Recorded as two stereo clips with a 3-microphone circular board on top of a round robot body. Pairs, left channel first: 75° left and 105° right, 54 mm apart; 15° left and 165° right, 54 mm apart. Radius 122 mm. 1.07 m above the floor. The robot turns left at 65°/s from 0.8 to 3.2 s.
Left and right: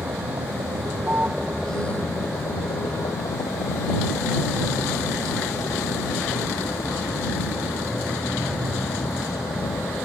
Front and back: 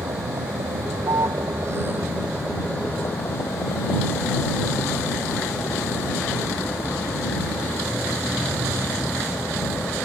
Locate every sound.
0.0 s a vehicle: 145° right; by 10.0 s 60° left